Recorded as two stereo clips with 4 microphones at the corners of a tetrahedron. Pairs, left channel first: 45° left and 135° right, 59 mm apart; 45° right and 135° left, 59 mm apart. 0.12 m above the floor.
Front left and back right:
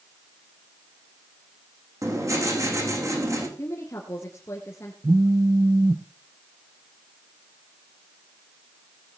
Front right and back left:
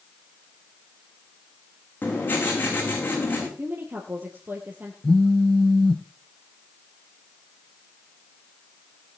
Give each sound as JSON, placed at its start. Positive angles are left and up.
{"t": 2.0, "sound": "writing", "azimuth_deg": -105, "distance_m": 4.5}
{"t": 3.6, "sound": "a woman speaking", "azimuth_deg": 85, "distance_m": 2.0}
{"t": 5.0, "sound": "a phone buzzing", "azimuth_deg": -125, "distance_m": 0.5}